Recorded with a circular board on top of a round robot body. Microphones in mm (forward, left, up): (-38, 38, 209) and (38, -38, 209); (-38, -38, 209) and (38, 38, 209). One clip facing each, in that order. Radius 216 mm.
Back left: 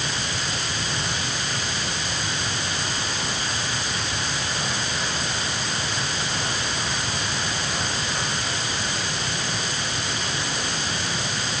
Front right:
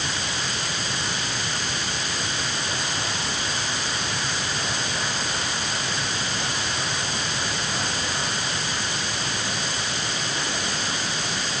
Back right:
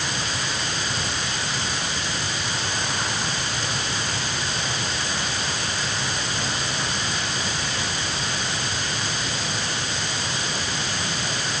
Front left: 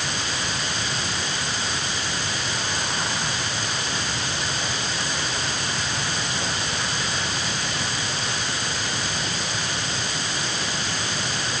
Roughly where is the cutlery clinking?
I don't hear cutlery clinking.